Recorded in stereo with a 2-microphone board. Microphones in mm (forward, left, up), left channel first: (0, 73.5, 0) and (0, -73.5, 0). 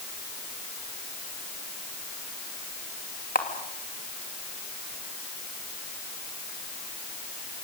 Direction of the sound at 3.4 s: 85° left.